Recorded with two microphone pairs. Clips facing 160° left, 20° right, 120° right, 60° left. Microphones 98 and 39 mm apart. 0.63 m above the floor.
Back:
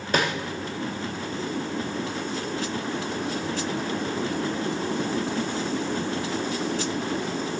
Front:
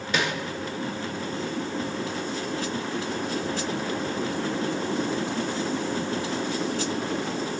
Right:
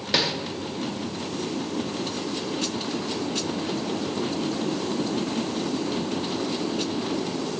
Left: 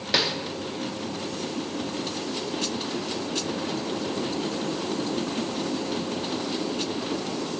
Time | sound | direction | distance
0.1 | a snare drum | 145° left | 0.5 m